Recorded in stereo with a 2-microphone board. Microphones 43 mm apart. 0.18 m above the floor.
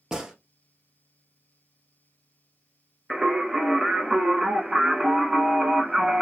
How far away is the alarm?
No alarm in this recording.